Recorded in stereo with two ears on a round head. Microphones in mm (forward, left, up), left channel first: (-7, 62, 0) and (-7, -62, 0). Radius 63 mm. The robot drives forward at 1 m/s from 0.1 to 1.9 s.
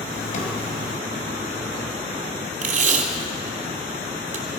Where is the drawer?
60° left (ahead or behind), 4 m; by 0.5 s 55° left (ahead or behind), 4 m.